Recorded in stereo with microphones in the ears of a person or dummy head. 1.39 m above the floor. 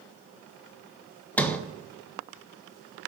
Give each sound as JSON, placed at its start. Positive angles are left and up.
{"t": 1.4, "sound": "a sliding door", "side_deg": 5, "distance_m": 1.2}